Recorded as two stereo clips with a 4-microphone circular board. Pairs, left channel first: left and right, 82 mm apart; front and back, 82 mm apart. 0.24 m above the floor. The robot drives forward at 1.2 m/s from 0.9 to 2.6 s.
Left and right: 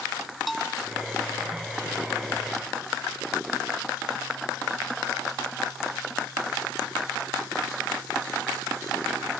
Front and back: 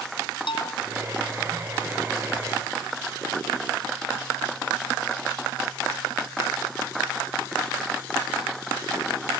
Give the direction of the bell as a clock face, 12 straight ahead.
12 o'clock.